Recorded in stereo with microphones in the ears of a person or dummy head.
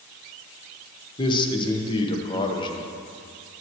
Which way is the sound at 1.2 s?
25° left (ahead or behind).